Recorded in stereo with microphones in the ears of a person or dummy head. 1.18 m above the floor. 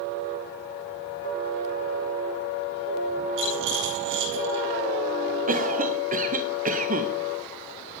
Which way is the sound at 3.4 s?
75° right (ahead or behind).